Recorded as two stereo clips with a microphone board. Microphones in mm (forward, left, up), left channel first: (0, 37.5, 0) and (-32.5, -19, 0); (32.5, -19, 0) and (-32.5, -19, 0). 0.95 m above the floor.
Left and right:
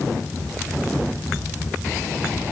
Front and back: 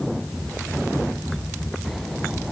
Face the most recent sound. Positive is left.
No sound to turn to.